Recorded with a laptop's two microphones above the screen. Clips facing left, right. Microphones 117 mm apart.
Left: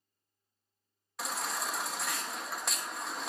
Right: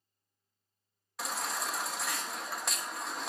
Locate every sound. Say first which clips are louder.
1.2 s a baby crying: even; centre (ahead or behind), 0.8 m